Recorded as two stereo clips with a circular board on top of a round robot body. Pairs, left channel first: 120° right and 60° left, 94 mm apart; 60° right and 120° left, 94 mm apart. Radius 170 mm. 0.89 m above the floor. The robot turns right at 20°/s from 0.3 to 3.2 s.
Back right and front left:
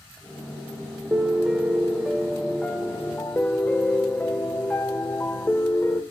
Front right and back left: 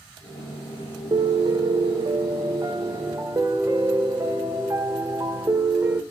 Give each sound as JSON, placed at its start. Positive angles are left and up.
{"t": 1.1, "sound": "a piano", "azimuth_deg": 130, "distance_m": 1.5}